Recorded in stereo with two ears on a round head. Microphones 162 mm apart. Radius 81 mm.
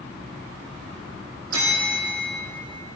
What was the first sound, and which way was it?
A bell, 55° right (ahead or behind).